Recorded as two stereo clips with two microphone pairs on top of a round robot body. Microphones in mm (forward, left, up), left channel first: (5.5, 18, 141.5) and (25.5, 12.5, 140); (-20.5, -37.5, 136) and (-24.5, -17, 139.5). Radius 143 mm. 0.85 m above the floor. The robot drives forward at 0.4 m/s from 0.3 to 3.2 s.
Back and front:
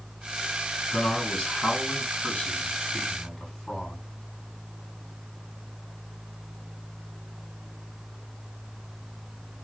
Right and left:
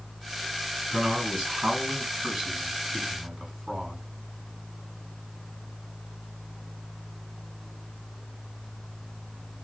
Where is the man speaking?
165° left, 5.5 m.